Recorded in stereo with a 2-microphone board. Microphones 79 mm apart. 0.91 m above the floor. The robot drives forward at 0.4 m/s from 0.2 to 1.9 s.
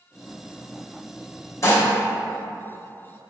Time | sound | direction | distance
1.6 | dishes clattering | 40° left (ahead or behind) | 1.0 m